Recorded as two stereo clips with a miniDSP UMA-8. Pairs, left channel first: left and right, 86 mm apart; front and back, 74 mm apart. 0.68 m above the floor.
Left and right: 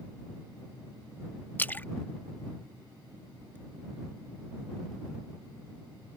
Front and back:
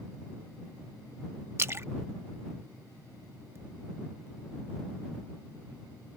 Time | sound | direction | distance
1.6 | a splash | 145° left | ?